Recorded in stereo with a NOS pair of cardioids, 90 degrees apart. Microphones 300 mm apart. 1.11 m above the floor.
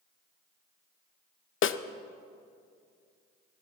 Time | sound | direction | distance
1.6 | a snare drum | 45° left | 0.7 m